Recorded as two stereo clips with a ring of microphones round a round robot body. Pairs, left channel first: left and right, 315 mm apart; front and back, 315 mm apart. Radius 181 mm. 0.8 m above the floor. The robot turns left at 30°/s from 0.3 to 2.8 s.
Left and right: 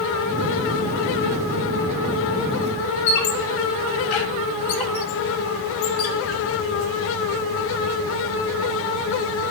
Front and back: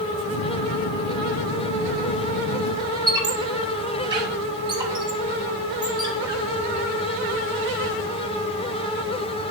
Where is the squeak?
105° left, 0.9 m.